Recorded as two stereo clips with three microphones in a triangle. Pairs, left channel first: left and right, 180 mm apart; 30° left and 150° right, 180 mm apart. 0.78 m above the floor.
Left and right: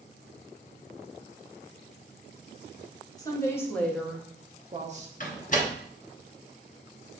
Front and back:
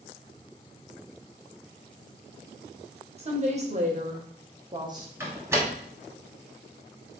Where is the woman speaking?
160° left, 1.1 m; by 5.1 s 85° right, 0.7 m.